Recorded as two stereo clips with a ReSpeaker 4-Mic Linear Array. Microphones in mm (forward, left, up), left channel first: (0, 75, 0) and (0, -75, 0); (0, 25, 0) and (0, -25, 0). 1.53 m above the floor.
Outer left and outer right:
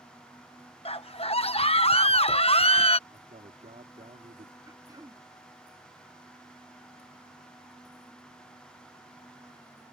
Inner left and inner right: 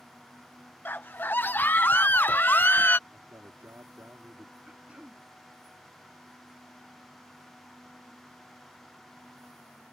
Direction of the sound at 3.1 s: 55° right (ahead or behind).